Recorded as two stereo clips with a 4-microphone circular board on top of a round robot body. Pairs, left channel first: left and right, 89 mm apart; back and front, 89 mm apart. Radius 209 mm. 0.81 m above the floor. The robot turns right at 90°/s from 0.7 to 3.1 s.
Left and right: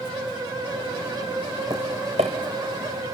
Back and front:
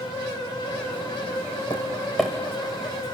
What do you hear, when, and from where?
1.7 s tapping: 140° right, 0.6 m; by 3.1 s 15° right, 0.6 m